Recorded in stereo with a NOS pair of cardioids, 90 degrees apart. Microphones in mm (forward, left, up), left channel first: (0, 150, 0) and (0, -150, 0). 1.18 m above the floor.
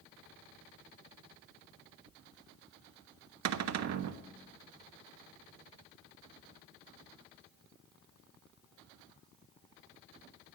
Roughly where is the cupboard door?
Ahead right.